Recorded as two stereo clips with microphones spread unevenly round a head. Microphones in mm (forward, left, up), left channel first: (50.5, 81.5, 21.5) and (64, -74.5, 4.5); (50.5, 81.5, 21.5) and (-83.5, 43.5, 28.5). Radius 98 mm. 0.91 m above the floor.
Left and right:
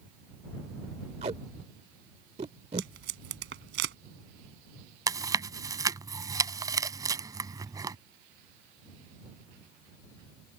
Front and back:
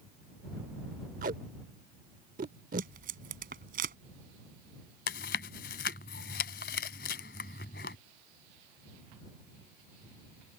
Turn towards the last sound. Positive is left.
turn(degrees=-15)